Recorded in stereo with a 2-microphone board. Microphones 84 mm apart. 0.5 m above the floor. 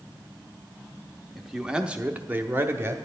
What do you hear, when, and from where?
1.4 s a man speaking: 5° right (ahead or behind), 1.0 m; by 3.0 s 25° right (ahead or behind), 0.9 m